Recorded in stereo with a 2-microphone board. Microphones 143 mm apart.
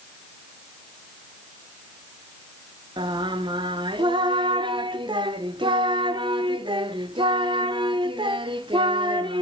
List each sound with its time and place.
3.0 s singing: 35° right (ahead or behind), 0.6 m